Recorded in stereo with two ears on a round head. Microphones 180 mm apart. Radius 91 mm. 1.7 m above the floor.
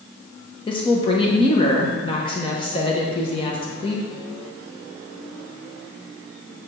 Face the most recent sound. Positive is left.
turn(degrees=25)  # may be behind; listen again after turning